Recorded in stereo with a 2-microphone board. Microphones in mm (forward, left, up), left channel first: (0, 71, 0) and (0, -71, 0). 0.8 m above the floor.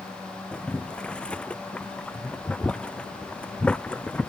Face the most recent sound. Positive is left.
turn(degrees=10)  # may be behind; listen again after turning